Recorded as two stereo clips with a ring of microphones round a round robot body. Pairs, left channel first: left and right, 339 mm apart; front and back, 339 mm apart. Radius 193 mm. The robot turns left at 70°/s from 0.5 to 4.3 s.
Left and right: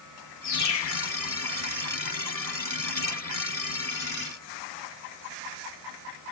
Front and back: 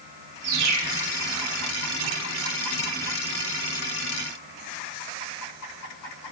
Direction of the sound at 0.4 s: 160° left.